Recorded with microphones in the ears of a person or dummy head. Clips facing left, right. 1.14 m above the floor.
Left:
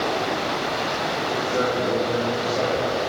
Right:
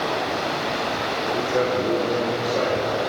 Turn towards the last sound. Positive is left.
turn(degrees=-85)